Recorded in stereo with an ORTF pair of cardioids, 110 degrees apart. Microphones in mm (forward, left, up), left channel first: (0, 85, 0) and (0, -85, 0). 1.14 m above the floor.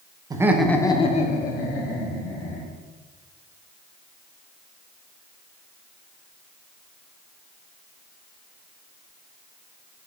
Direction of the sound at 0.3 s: 25° right.